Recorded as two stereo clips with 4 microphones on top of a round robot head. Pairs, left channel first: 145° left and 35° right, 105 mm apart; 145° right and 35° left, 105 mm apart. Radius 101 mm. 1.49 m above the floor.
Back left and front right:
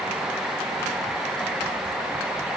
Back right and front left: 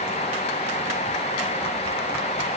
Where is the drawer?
No drawer in this recording.